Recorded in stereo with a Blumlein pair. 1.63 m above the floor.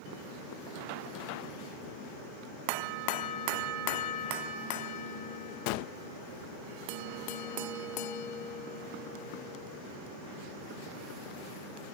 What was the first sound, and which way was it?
A gunshot, 45° left.